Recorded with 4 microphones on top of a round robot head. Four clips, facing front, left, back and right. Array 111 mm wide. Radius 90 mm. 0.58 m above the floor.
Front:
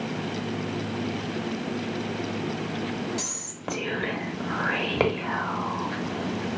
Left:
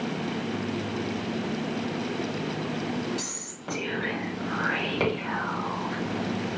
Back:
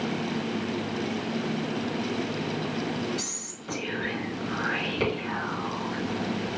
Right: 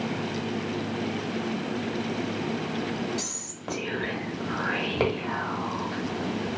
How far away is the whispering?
About 1.1 m.